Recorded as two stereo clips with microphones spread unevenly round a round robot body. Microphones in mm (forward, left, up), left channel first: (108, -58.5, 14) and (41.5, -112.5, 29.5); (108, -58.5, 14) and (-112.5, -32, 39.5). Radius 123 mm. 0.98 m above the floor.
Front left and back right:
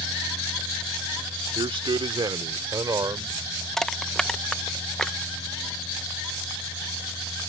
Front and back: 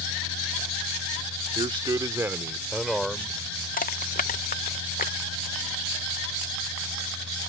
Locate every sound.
1.6 s a man speaking: 120° right; by 3.4 s 95° right
3.8 s crushing: 35° right